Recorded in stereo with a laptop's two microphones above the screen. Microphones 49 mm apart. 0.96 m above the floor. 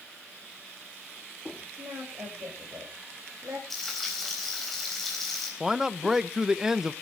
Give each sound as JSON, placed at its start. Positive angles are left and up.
{"t": 1.8, "sound": "a woman speaking", "side_deg": -50, "distance_m": 5.0}
{"t": 3.7, "sound": "frying", "side_deg": 5, "distance_m": 3.5}
{"t": 5.6, "sound": "a man speaking", "side_deg": -10, "distance_m": 0.7}